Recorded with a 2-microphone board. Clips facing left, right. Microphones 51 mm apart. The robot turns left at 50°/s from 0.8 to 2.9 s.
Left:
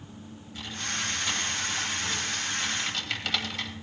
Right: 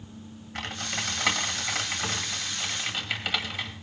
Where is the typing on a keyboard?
60° right (ahead or behind), 2 m; by 3.7 s 15° right (ahead or behind), 2 m.